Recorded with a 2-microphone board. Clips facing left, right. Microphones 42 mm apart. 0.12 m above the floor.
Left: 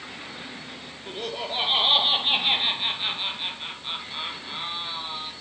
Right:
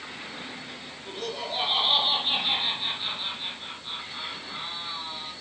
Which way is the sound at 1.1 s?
25° left (ahead or behind).